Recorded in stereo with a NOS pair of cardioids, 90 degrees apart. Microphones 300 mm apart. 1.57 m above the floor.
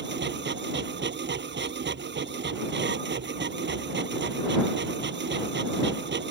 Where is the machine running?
35° right.